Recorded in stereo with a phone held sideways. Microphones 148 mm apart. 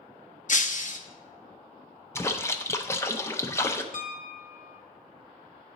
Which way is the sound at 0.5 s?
60° left (ahead or behind).